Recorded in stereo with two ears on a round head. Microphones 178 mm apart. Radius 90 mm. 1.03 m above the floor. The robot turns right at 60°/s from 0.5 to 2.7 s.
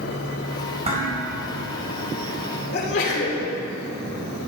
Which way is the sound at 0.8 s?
30° right (ahead or behind).